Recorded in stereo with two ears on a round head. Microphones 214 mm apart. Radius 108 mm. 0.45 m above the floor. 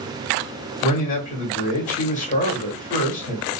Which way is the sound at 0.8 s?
30° left (ahead or behind).